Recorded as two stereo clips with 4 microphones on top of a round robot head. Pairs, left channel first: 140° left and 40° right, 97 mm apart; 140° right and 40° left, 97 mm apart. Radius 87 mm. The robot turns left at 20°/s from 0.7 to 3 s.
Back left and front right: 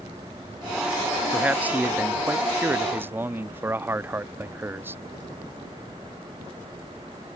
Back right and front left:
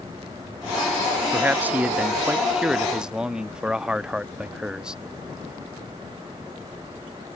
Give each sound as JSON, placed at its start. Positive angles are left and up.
{"t": 1.3, "sound": "a man speaking", "azimuth_deg": 5}